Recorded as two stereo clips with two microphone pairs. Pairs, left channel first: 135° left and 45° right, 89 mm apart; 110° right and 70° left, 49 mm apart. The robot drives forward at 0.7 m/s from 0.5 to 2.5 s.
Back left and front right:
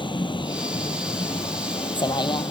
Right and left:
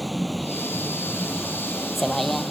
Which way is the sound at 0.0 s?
160° left.